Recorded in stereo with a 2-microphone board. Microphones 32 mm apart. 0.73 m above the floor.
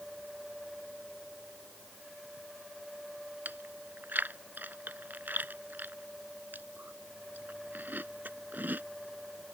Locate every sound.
3.5 s chewing: 75° right (ahead or behind)